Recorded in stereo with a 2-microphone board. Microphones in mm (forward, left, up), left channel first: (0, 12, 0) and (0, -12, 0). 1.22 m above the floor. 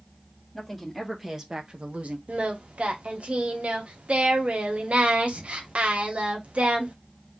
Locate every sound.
0.5 s a woman speaking: centre (ahead or behind), 2.5 m; by 2.2 s 75° right (ahead or behind), 1.3 m
2.3 s singing: 65° right (ahead or behind), 1.1 m